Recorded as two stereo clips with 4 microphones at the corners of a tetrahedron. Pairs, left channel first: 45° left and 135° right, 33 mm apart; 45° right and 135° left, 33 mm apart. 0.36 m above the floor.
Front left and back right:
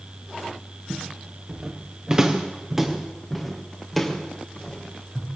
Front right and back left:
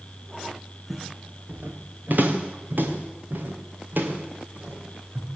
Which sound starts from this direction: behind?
Footsteps, at 0.9 s.